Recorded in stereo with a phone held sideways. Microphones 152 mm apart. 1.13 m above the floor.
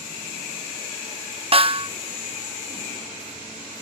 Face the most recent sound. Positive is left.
turn(degrees=-40)  # may be behind; listen again after turning